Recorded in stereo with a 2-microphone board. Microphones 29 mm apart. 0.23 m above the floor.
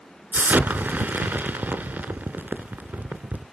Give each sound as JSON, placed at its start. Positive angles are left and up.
{"t": 0.3, "sound": "an explosion", "side_deg": -80, "distance_m": 0.6}